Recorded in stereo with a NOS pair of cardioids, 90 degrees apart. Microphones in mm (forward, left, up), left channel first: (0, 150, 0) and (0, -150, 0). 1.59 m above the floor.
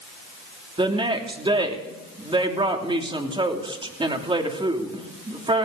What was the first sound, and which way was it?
A woman speaking, 15° right.